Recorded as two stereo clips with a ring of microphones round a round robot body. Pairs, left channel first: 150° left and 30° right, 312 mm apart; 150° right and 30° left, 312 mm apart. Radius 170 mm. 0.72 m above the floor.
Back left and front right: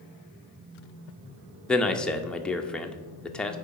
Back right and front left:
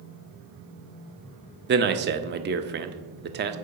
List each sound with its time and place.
1.7 s a man speaking: 65° left, 0.6 m